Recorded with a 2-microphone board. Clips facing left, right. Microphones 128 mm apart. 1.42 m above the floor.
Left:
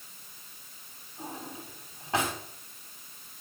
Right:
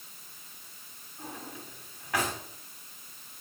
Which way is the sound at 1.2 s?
30° left (ahead or behind).